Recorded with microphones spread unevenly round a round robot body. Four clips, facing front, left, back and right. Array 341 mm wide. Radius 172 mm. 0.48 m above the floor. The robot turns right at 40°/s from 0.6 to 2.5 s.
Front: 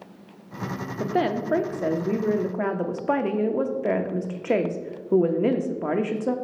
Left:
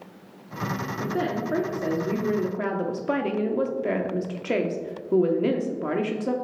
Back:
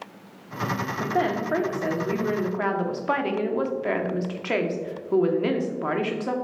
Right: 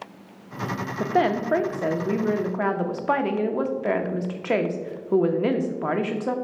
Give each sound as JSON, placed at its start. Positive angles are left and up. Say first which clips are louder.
{"t": 1.0, "sound": "a woman speaking", "louder": "right 7 dB, front 1 dB", "azimuth_deg": -50, "distance_m": 0.8}